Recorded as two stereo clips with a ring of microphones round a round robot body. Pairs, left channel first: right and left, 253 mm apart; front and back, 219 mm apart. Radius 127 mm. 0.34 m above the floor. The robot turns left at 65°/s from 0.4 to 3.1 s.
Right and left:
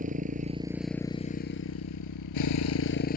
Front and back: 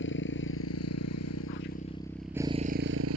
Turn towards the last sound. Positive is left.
turn(degrees=-145)